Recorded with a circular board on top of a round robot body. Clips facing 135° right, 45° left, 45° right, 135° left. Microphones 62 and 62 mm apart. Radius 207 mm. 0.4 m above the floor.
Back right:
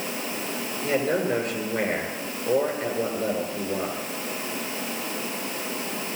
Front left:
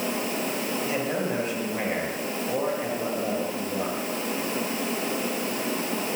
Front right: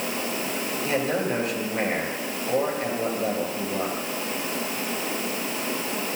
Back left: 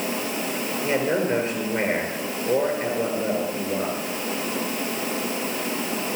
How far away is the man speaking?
About 8.5 m.